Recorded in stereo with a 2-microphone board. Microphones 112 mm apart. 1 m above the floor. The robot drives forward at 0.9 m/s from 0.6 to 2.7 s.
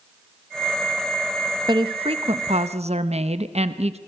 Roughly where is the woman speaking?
Right.